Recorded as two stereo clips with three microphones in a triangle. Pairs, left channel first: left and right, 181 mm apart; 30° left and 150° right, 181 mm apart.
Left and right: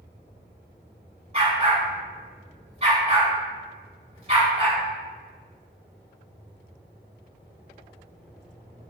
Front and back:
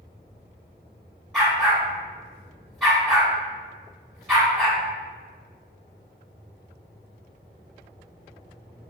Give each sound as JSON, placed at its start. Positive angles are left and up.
{"t": 1.3, "sound": "a dog barking", "azimuth_deg": -60, "distance_m": 1.0}